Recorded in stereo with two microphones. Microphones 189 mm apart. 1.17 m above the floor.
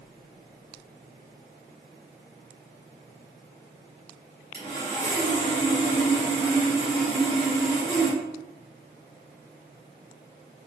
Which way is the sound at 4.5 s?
45° right (ahead or behind).